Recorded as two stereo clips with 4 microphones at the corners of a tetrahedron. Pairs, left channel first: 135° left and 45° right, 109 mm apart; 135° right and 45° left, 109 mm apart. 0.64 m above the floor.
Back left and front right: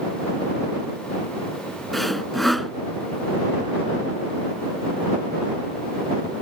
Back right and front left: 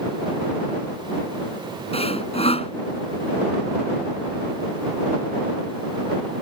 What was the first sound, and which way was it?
Sawing, 135° right.